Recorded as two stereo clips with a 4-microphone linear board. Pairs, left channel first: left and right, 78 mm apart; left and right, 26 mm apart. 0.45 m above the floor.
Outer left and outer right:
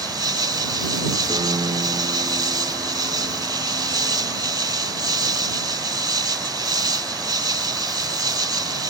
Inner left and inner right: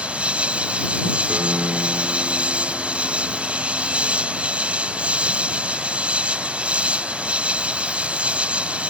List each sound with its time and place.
0.0 s an insect: 60° right (ahead or behind)
1.3 s a piano: 80° right